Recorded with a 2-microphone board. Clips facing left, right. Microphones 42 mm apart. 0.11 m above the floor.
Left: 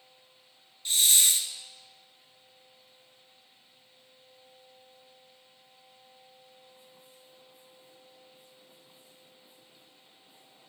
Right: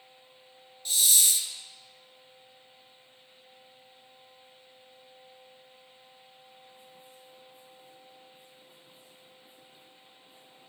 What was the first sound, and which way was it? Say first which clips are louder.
A hiss: left 2 dB; 40° left (ahead or behind).